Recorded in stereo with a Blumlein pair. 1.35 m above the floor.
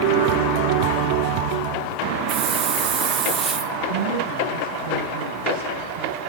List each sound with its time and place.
2.3 s a hiss: 20° right, 1.5 m
3.9 s a woman speaking: 60° right, 9 m